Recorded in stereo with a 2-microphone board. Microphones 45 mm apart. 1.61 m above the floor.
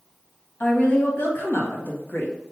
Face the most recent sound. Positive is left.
turn(degrees=45)  # may be behind; listen again after turning